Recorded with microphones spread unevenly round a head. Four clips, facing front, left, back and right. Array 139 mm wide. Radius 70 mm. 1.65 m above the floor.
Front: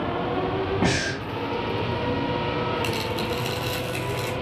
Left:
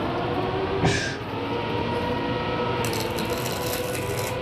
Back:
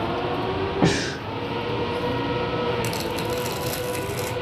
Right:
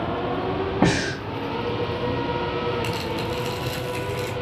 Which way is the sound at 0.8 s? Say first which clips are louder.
Right 3 dB, back 2 dB; 105° right.